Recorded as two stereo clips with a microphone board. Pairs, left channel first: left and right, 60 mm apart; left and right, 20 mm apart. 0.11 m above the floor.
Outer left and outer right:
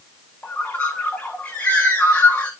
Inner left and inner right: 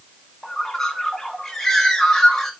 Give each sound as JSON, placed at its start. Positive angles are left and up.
{"t": 0.4, "sound": "a bird", "side_deg": 20, "distance_m": 1.4}